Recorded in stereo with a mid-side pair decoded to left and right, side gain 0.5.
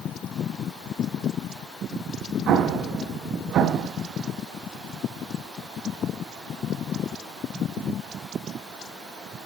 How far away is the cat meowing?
I don't hear a cat meowing.